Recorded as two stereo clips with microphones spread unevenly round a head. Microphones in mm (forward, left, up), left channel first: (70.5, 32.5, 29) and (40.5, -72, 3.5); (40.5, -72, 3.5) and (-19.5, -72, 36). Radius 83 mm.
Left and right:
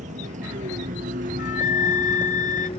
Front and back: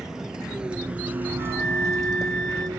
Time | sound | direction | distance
0.0 | a vehicle | 105° right | ?
1.4 | a flute | 90° left | ?